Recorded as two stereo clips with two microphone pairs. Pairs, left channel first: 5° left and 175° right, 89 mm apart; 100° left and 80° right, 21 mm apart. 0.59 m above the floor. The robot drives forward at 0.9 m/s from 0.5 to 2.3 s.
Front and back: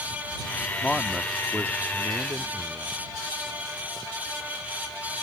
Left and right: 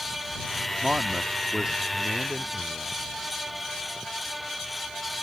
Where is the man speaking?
65° right; by 3.0 s 150° right.